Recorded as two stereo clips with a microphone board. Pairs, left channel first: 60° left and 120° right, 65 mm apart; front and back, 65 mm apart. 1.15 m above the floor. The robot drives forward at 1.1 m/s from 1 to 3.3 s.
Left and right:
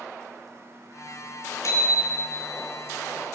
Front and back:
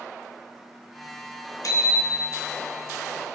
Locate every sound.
1.6 s a bicycle bell: 25° left, 3 m; by 2.5 s 35° left, 2 m